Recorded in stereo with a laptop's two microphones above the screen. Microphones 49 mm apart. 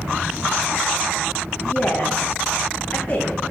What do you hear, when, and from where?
1.6 s a woman speaking: 25° left (ahead or behind), 2.5 m